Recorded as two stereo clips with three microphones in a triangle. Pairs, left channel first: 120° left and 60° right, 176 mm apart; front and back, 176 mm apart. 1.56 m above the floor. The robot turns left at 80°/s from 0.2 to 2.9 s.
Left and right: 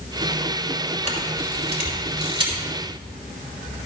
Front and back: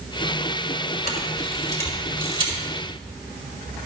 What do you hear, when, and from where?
1.1 s a camera shutter: 15° right, 4 m; by 2.6 s 140° right, 4 m